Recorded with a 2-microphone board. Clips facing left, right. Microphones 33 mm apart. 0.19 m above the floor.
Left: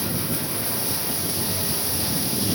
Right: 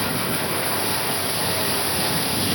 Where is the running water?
30° right (ahead or behind).